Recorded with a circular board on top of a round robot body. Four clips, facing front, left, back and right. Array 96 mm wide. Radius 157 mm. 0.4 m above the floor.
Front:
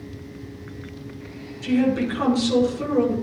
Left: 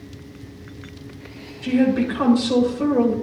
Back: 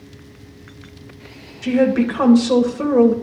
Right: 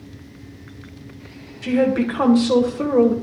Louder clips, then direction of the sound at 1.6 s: Even, back 4 dB; 140° right.